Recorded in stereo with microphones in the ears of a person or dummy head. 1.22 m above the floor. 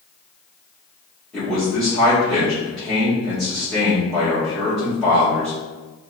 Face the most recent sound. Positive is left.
turn(degrees=5)  # may be behind; listen again after turning